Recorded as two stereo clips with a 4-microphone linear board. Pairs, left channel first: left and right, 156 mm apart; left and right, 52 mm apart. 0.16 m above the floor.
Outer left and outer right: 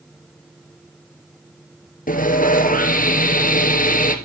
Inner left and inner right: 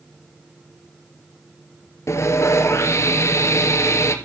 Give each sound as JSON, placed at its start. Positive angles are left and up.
{"t": 2.1, "sound": "sawing", "side_deg": 65, "distance_m": 2.5}